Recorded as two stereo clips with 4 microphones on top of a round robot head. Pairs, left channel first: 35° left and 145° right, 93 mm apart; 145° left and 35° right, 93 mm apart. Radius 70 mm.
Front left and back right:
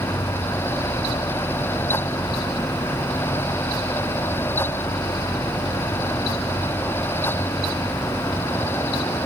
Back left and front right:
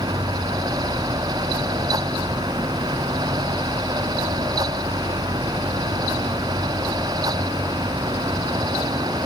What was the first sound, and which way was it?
Only background noise.